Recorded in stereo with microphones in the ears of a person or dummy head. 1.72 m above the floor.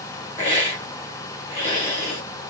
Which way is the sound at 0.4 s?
40° left (ahead or behind).